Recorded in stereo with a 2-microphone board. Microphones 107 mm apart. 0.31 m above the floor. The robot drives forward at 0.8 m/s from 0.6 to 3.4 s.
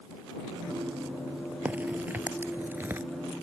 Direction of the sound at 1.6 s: 15° right (ahead or behind).